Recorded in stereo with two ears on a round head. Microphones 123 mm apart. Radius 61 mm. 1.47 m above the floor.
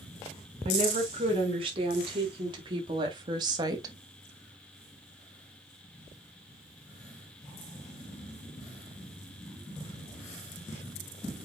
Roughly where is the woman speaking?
Right.